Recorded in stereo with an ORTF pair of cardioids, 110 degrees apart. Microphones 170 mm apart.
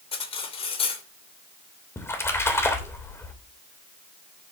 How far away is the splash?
About 3 m.